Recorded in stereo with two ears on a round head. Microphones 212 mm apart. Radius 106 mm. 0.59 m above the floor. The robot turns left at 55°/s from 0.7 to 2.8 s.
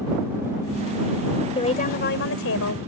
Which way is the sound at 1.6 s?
155° left.